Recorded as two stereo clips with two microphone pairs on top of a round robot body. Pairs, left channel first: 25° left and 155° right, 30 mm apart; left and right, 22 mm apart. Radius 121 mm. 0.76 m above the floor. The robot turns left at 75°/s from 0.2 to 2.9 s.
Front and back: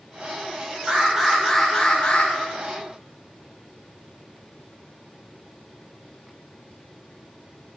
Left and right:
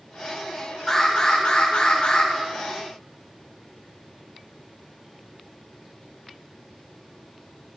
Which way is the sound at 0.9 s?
155° left.